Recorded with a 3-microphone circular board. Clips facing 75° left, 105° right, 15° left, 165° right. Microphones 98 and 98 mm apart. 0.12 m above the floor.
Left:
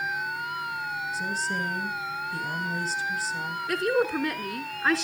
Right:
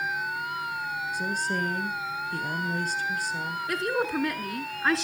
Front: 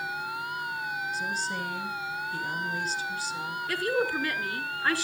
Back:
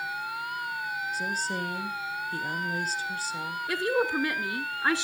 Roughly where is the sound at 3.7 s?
Behind.